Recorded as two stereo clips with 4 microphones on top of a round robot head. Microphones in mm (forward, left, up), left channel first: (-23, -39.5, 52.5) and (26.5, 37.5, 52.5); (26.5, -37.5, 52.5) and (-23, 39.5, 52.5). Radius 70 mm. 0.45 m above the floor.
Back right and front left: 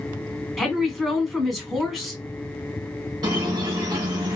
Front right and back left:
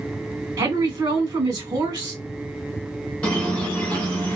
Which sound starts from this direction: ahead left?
A squeak, at 3.2 s.